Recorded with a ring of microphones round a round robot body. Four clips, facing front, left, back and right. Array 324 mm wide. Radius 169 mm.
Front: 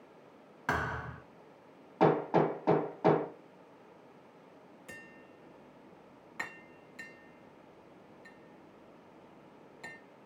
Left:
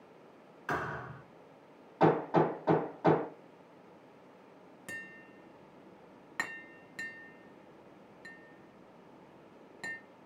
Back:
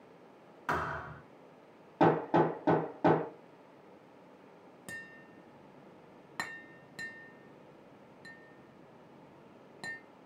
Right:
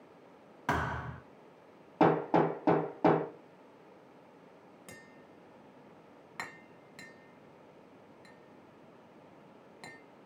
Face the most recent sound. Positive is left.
turn(degrees=160)